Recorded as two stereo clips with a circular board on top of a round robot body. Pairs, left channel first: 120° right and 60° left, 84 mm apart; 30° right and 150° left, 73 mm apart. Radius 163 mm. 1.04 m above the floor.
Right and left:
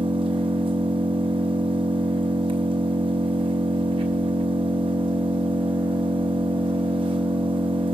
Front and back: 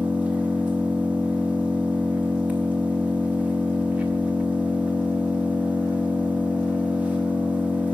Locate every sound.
0.0 s an engine running: 75° left, 1.2 m